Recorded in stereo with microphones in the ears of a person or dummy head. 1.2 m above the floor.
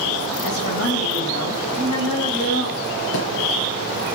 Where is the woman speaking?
80° left, 7 m; by 3.0 s 60° left (ahead or behind), 9.5 m.